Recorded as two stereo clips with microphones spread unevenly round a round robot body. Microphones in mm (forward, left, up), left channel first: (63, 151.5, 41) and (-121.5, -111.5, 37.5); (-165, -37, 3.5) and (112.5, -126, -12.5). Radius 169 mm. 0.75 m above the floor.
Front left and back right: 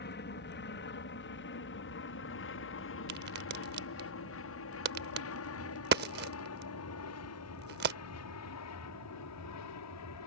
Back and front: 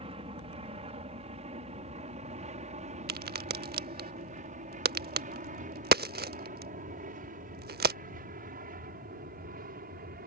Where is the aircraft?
35° left; by 10.3 s 40° left.